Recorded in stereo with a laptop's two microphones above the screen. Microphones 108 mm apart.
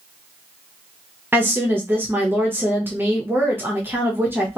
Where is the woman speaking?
15° right (ahead or behind), 0.8 m.